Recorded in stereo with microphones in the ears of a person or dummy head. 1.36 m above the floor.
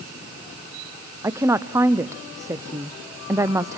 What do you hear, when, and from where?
1.2 s a woman speaking: 15° right (ahead or behind), 0.7 m